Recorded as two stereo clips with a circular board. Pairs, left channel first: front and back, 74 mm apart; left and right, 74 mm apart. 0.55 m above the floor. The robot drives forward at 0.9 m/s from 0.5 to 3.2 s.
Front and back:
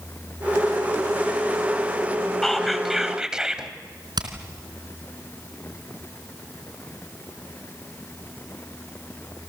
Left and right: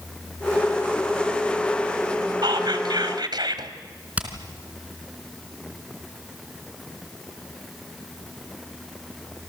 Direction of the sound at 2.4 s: 85° right.